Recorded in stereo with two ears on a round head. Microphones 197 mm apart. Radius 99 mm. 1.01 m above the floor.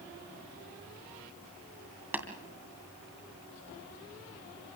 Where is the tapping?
10° right (ahead or behind), 2.5 m.